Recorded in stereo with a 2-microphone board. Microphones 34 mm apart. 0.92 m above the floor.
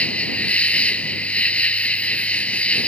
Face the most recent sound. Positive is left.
turn(degrees=40)  # may be behind; listen again after turning